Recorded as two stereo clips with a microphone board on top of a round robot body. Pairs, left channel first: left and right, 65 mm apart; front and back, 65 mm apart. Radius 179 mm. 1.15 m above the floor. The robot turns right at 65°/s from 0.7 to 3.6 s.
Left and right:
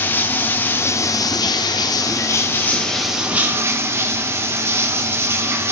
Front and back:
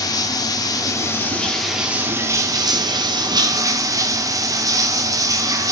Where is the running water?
30° left, 0.9 m; by 5.7 s 140° right, 0.9 m.